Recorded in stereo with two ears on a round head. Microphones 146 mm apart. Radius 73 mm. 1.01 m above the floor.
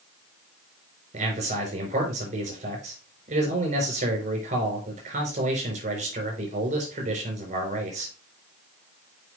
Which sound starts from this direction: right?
A man speaking, at 1.1 s.